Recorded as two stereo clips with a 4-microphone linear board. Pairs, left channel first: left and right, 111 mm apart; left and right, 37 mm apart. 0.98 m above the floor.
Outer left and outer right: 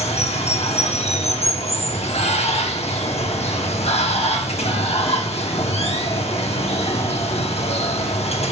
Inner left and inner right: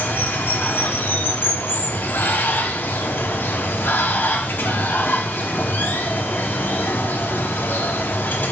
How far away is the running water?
About 0.9 m.